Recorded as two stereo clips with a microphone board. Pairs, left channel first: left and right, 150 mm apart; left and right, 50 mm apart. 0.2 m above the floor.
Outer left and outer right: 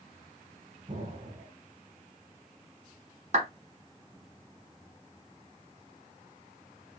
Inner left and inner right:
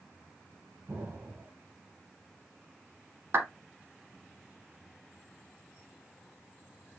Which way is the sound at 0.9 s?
50° right (ahead or behind).